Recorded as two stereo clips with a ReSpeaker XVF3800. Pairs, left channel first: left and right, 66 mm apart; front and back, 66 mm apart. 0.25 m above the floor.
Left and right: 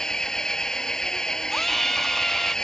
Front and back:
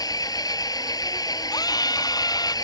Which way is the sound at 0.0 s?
10° left.